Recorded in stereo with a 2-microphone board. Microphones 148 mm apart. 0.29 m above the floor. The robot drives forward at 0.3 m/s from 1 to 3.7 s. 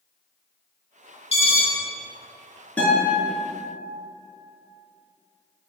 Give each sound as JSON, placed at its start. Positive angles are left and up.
{"t": 1.3, "sound": "an alarm", "side_deg": 40, "distance_m": 0.8}
{"t": 2.8, "sound": "a guitar", "side_deg": 10, "distance_m": 1.8}